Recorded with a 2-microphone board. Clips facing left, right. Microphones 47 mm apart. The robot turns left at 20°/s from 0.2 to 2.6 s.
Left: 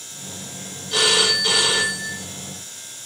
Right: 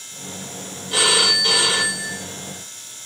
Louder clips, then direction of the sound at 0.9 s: Right 1 dB; 15° right (ahead or behind).